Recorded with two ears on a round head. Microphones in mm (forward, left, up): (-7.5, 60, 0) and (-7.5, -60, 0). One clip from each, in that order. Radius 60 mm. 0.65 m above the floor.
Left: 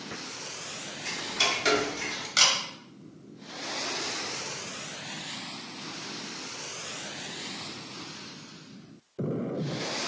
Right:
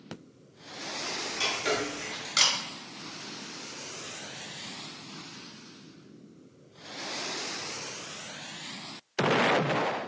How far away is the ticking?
About 0.6 m.